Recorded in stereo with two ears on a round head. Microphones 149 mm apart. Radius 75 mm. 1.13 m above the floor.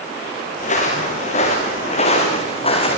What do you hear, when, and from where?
0.6 s footsteps: 45° left (ahead or behind), 5.5 m; by 3.0 s 35° left (ahead or behind), 4.5 m